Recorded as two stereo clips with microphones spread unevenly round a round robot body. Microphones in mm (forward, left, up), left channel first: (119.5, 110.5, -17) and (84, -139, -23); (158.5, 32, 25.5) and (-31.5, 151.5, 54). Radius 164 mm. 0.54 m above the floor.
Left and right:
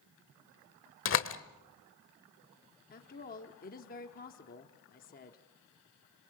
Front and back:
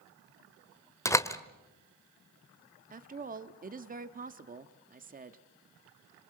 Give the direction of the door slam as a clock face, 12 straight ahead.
11 o'clock.